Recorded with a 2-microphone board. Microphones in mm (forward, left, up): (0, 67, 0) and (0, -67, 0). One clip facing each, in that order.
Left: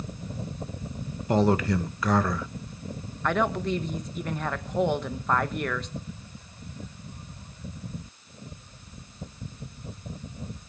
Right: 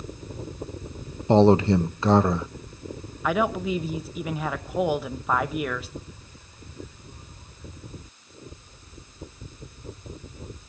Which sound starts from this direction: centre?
A woman speaking, at 3.2 s.